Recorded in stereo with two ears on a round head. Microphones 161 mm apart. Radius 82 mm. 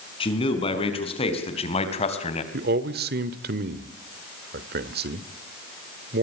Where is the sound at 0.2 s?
30° left (ahead or behind), 5.5 m; by 2.4 s 40° left (ahead or behind), 3.5 m.